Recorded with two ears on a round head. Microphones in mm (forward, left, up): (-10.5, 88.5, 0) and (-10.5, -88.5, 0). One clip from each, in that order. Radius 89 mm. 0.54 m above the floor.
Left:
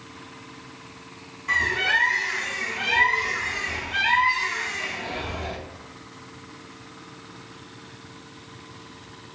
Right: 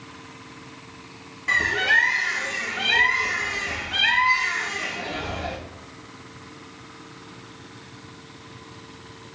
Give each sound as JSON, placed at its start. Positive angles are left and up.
{"t": 1.5, "sound": "a bird", "side_deg": -70, "distance_m": 1.7}